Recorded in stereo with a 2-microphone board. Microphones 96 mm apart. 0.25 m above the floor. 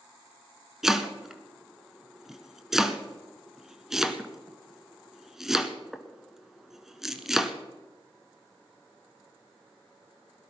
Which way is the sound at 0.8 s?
5° right (ahead or behind).